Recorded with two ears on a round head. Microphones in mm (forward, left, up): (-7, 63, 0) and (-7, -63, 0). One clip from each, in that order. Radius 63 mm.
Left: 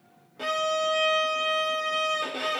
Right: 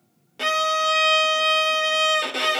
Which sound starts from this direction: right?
A violin, at 0.4 s.